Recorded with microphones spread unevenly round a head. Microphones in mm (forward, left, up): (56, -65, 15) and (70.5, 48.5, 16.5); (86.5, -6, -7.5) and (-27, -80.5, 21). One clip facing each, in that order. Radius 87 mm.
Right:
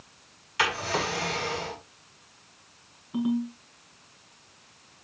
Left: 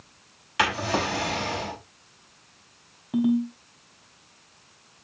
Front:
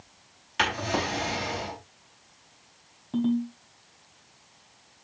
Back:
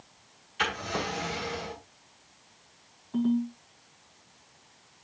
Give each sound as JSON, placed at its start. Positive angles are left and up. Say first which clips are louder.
{"t": 0.6, "sound": "a drawer", "louder": "left 3 dB, front 4 dB", "azimuth_deg": 55, "distance_m": 5.0}
{"t": 3.1, "sound": "a ringtone", "louder": "left 4 dB, front 1 dB", "azimuth_deg": 80, "distance_m": 3.0}